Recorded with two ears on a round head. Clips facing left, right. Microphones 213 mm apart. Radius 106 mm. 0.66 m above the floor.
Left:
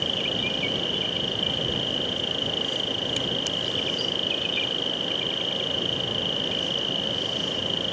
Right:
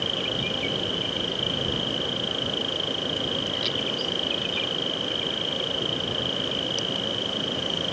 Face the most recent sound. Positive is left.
turn(degrees=15)  # may be behind; listen again after turning